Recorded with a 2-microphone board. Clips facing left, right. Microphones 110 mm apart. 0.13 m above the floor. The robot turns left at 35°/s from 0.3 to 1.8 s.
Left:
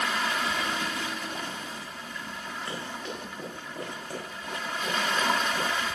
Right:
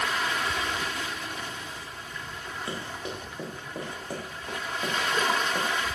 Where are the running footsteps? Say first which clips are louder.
Right 2 dB; 20° right (ahead or behind), 5.5 m; by 5.7 s 35° right (ahead or behind), 5.5 m.